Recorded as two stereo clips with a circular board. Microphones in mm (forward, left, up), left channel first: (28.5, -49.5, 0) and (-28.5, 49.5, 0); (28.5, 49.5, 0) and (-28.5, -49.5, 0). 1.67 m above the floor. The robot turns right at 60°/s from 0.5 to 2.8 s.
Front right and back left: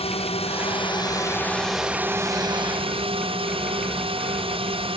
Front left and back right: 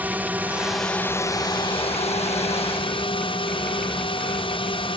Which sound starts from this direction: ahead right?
A drone, at 0.0 s.